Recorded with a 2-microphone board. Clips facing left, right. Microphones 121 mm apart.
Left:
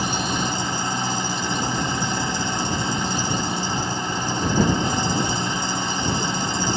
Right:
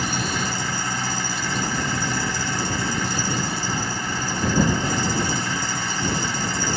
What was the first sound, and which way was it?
An engine running, 20° left (ahead or behind).